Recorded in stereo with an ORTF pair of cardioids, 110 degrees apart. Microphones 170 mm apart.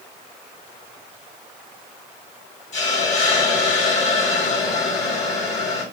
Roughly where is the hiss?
Ahead left.